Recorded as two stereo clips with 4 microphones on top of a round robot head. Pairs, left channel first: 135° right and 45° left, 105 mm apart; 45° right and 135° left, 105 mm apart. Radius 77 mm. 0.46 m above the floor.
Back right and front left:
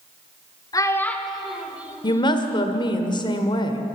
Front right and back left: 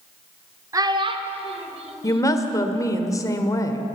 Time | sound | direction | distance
0.7 | a child speaking | 175° right | 1.2 m
2.0 | a woman speaking | 100° right | 1.5 m